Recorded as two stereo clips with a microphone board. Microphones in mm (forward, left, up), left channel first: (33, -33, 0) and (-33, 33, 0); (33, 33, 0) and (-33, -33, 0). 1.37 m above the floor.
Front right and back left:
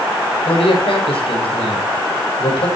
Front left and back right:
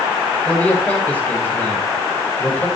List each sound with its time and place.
0.5 s a man speaking: 30° right, 6 m